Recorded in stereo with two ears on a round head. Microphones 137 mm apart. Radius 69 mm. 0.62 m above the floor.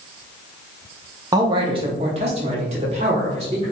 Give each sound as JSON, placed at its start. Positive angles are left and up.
{"t": 1.3, "sound": "a man speaking", "side_deg": -25, "distance_m": 0.7}